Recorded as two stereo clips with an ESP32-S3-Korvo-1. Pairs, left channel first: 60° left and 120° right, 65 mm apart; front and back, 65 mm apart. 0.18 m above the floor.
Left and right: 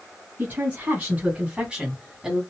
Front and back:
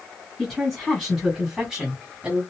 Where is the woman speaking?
85° right, 1.8 m; by 2.4 s 160° left, 1.5 m.